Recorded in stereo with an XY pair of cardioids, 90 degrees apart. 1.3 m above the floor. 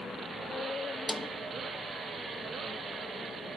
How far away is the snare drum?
About 0.6 m.